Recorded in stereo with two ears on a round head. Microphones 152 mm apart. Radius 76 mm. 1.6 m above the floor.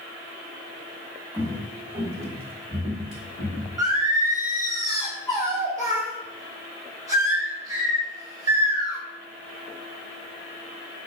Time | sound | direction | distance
1.3 | footsteps | 25° right (ahead or behind) | 1.9 m
3.8 | singing | 25° right (ahead or behind) | 2 m